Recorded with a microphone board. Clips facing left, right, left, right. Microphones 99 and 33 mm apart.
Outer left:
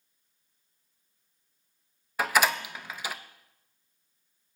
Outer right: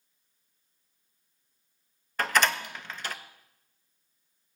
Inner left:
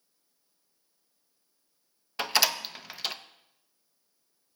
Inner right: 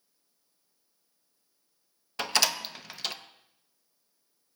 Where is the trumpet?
I don't hear a trumpet.